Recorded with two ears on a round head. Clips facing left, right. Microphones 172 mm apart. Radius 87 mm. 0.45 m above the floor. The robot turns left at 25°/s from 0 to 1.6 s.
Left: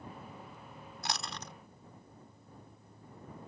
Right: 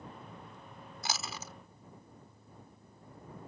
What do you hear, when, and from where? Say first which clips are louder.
1.0 s chewing: even; centre (ahead or behind); by 1.5 s 5° right (ahead or behind)